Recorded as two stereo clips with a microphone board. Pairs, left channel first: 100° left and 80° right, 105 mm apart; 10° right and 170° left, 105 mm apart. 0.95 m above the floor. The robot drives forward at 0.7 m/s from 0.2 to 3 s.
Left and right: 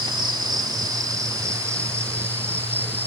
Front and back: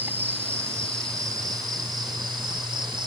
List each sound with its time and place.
0.0 s an insect: 120° right; by 3.1 s 150° right